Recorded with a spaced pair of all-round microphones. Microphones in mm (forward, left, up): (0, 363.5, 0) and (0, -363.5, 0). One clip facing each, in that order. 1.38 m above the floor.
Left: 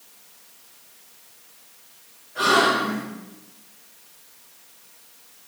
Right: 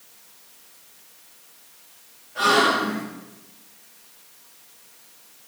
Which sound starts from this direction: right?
A gasp, at 2.4 s.